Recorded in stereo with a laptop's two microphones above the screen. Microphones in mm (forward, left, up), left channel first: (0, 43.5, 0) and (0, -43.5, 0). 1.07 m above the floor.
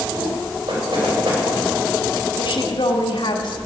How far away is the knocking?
About 5 m.